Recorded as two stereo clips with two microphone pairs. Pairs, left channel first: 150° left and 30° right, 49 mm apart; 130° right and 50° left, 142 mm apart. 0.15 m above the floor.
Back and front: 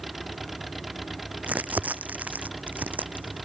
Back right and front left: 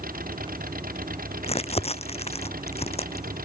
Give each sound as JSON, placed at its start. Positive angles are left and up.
{"t": 0.0, "sound": "an engine running", "azimuth_deg": 60}
{"t": 1.4, "sound": "crumpling", "azimuth_deg": -85}